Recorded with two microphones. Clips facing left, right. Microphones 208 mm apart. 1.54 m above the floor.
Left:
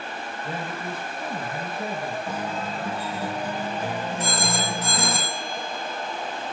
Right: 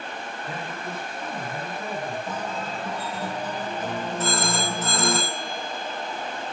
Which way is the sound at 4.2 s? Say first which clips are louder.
Right 3 dB; 15° left (ahead or behind).